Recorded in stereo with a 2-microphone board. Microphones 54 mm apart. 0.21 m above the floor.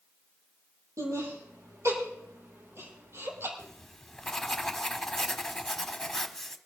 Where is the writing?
5° left (ahead or behind), 1.0 m.